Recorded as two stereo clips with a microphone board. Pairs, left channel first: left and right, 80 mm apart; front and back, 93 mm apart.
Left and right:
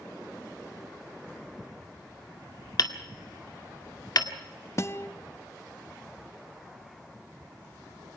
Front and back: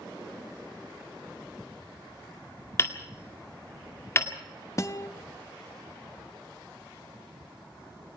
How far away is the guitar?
About 0.8 m.